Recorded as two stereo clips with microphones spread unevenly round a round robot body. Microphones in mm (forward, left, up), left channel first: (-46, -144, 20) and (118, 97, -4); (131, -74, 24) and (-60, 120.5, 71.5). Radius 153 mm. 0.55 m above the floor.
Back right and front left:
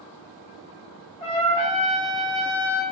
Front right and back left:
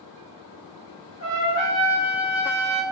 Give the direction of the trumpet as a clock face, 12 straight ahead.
2 o'clock.